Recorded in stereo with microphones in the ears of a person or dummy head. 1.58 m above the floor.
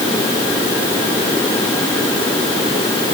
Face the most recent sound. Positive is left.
No sound to turn to.